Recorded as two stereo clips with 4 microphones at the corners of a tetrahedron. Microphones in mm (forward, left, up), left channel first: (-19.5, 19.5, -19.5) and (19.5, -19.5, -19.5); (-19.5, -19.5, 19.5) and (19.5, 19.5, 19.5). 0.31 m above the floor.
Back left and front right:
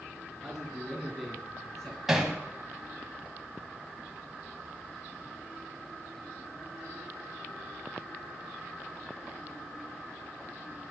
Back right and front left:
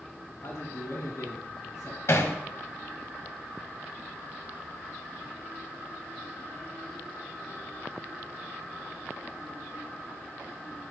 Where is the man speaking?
140° right, 2.5 m; by 2.0 s 160° right, 2.5 m.